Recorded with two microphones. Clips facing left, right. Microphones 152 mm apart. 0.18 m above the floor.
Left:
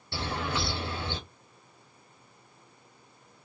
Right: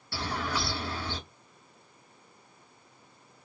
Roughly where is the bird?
Left.